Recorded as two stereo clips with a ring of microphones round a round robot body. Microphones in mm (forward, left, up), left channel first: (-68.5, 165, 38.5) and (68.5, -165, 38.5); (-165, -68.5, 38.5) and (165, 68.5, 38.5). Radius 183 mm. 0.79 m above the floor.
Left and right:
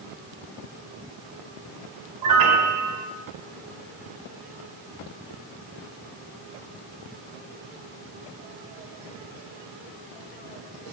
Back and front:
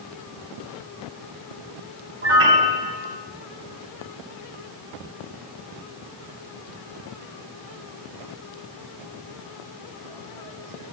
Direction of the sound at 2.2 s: 35° right.